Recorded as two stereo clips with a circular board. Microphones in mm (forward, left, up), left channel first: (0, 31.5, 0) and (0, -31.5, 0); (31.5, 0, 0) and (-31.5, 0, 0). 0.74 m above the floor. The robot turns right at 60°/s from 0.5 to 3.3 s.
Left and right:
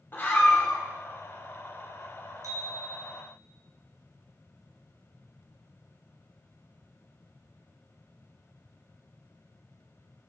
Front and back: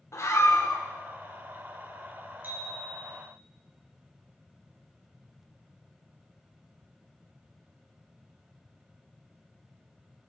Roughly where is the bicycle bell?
Behind right.